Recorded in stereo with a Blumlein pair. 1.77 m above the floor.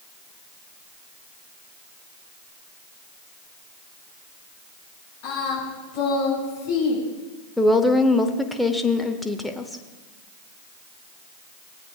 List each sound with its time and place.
5.2 s singing: 45° left, 5.5 m
7.6 s a woman speaking: straight ahead, 0.9 m